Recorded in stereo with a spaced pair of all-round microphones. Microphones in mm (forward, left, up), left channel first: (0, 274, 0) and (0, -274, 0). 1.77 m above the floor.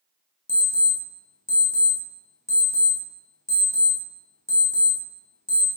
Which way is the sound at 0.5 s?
20° left (ahead or behind).